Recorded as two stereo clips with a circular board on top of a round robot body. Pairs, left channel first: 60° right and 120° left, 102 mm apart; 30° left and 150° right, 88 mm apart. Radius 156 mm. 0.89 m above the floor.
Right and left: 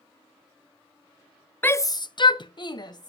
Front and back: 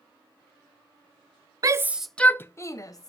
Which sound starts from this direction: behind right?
A shout, at 1.6 s.